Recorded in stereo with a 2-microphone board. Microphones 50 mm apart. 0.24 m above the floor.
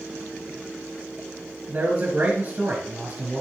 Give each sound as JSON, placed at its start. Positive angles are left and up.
{"t": 1.7, "sound": "a man speaking", "side_deg": -50, "distance_m": 3.0}